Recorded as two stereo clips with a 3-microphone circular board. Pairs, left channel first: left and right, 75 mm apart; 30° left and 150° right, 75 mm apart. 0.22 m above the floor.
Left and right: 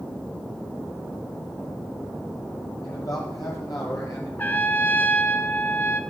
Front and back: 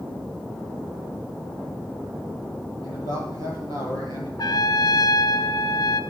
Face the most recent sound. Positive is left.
turn(degrees=30)